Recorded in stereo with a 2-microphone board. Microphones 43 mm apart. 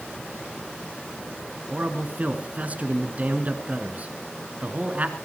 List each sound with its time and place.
1.7 s a man speaking: 35° right (ahead or behind), 2 m